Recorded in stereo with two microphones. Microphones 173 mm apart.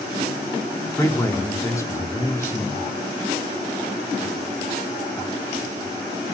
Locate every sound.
1.0 s a man speaking: 15° left (ahead or behind), 2 m